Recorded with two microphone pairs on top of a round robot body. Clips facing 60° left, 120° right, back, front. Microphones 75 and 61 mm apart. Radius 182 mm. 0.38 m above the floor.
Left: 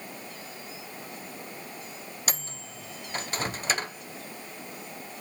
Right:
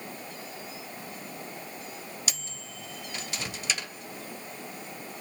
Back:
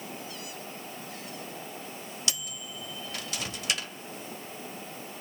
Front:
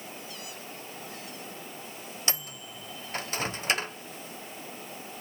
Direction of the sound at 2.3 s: 45° left.